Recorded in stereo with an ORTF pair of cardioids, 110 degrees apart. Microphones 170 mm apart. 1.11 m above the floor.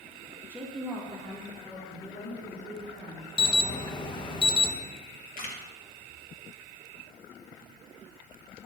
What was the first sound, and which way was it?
A woman speaking, 15° right.